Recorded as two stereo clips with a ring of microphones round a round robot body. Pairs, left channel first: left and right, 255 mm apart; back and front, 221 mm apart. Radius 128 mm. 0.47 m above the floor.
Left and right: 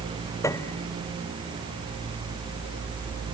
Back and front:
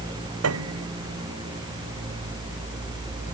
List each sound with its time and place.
0.4 s a piano: 10° left